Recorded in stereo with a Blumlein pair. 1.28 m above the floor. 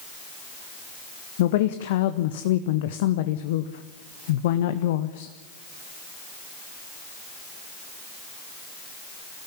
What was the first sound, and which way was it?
A woman speaking, 55° left.